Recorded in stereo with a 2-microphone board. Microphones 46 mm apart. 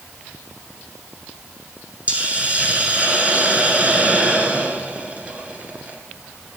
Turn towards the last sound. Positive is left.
turn(degrees=-30)  # may be behind; listen again after turning